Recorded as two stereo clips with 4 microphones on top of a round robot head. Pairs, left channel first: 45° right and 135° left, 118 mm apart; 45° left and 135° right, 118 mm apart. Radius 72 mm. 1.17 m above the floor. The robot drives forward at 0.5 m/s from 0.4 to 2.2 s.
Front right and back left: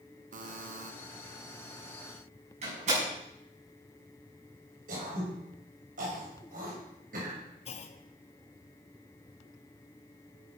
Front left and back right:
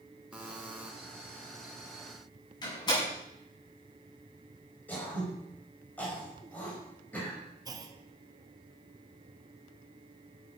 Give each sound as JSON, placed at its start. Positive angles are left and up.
{"t": 0.3, "sound": "a buzzer", "azimuth_deg": 145, "distance_m": 1.1}
{"t": 2.6, "sound": "a door slam", "azimuth_deg": 105, "distance_m": 7.5}
{"t": 4.9, "sound": "throat clearing", "azimuth_deg": 125, "distance_m": 5.0}
{"t": 7.7, "sound": "a clunk", "azimuth_deg": -75, "distance_m": 1.1}